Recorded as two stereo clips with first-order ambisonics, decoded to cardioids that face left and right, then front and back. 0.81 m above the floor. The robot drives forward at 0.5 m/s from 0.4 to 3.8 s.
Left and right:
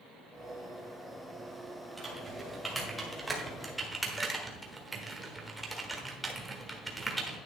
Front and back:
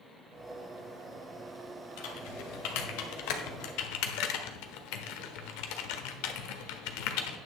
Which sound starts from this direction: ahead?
Typing on a keyboard, at 2.0 s.